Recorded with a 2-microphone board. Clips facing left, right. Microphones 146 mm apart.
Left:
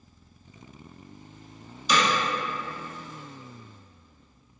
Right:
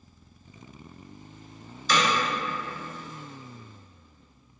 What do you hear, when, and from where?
1.9 s hammering: 15° left (ahead or behind), 1.4 m